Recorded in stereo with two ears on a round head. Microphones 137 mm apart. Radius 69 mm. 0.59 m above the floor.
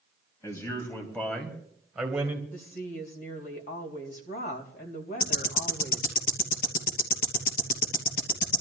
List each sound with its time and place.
0.4 s a man speaking: 20° left (ahead or behind), 3 m; by 2.4 s 10° right (ahead or behind), 2.5 m
2.5 s a woman speaking: 60° left (ahead or behind), 3.5 m
5.2 s ticking: 65° left (ahead or behind), 3 m